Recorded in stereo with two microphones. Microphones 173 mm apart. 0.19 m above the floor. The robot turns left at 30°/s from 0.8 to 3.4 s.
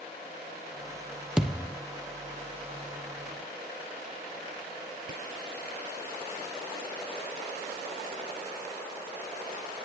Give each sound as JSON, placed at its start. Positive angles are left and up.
{"t": 1.4, "sound": "a thud", "side_deg": -5, "distance_m": 1.4}